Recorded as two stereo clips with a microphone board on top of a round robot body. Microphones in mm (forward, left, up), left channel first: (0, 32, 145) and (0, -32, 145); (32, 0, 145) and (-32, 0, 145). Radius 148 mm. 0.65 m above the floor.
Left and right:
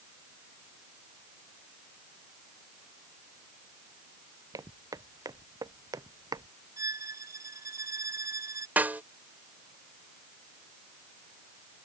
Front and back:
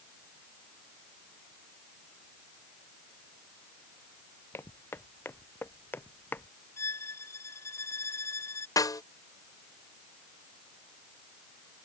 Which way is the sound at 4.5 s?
55° right.